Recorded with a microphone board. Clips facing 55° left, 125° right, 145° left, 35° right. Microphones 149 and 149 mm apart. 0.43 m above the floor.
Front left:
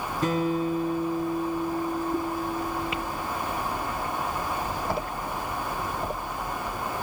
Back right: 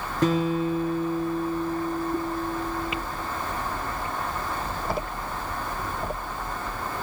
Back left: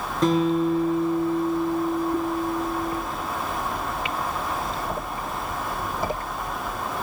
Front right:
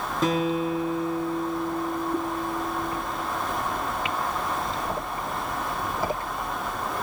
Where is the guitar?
125° right, 4 m.